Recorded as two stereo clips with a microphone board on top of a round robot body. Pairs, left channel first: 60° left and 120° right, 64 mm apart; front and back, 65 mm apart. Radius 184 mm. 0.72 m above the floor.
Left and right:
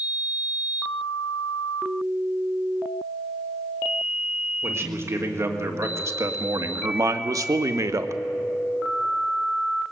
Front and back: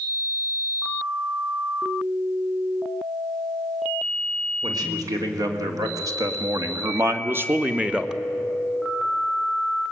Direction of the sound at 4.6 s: 170° right.